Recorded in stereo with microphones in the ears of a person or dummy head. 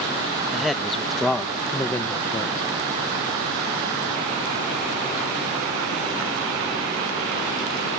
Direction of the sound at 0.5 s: Centre (ahead or behind).